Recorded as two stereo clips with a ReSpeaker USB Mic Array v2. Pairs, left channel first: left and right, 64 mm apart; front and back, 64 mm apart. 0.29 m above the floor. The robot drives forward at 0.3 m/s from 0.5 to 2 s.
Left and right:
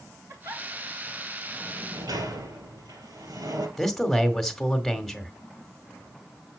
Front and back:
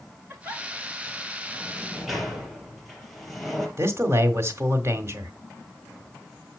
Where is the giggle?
115° right, 6.5 m; by 0.6 s 120° right, 6.5 m.